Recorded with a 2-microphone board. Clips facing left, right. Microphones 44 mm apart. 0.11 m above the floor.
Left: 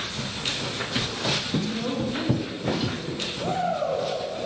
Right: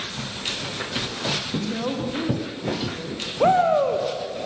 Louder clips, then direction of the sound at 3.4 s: Right 9 dB; 55° right (ahead or behind).